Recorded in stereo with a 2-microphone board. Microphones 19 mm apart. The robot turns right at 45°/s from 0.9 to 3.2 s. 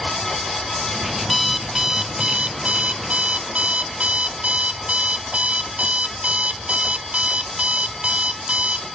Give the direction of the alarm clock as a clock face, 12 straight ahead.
6 o'clock.